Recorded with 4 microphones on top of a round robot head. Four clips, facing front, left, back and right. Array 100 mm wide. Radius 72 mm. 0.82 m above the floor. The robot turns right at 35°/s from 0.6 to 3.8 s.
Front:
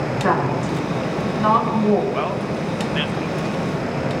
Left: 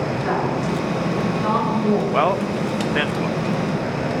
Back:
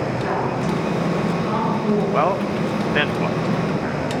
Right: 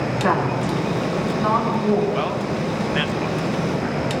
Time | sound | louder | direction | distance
0.2 | a woman speaking | right 3 dB, front 5 dB | 45° right | 5 m
2.1 | a man speaking | left 4 dB, back 4 dB | 130° left | 0.6 m